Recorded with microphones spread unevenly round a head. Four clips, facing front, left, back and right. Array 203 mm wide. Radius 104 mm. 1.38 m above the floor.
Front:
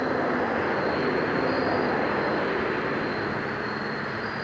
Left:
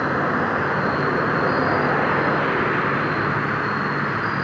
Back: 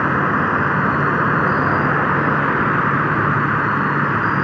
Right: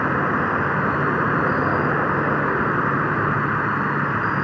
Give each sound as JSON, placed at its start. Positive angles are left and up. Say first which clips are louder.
{"t": 0.0, "sound": "an insect", "louder": "even, back 7 dB", "azimuth_deg": 175}